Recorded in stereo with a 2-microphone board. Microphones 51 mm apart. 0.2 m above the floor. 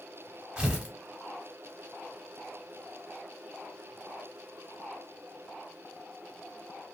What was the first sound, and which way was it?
Tearing paper, 15° right (ahead or behind).